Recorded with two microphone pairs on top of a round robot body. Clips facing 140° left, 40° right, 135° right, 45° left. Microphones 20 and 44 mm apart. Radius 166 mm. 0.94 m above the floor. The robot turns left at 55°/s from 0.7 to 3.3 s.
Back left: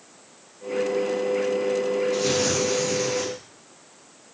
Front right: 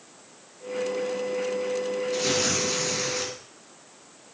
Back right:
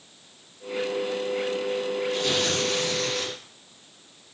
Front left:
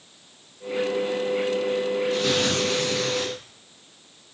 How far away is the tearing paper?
About 2.5 m.